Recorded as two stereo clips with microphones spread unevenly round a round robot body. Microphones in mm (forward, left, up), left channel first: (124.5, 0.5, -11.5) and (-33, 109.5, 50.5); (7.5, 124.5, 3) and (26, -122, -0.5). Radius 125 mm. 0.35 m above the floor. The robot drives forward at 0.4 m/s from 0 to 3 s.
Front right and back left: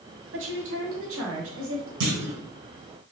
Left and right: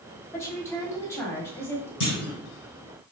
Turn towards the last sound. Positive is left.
turn(degrees=150)